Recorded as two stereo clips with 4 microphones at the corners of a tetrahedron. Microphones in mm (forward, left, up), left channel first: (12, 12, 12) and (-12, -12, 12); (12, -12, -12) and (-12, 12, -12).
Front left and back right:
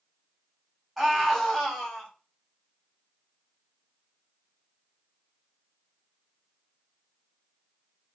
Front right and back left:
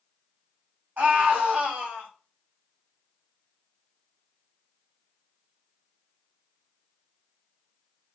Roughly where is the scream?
Behind left.